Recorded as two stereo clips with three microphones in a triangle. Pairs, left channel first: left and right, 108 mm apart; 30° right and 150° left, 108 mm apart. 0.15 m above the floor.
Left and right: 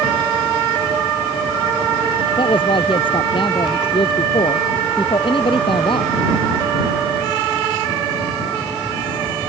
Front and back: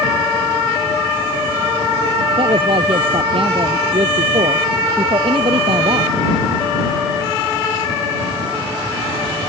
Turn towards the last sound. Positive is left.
turn(degrees=125)